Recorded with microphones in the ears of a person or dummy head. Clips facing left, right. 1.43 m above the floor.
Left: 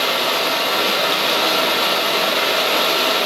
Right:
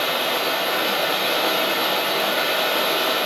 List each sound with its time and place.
0.0 s running water: 60° left (ahead or behind), 1.0 m